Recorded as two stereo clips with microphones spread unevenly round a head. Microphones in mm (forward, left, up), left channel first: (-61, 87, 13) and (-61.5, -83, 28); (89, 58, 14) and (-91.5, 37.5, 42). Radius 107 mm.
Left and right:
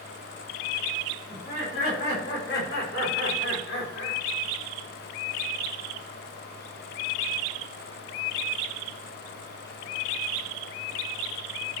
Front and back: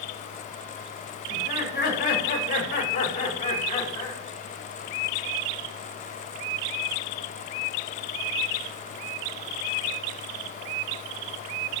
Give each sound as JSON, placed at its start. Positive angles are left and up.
{"t": 1.3, "sound": "laughter", "azimuth_deg": 40, "distance_m": 7.0}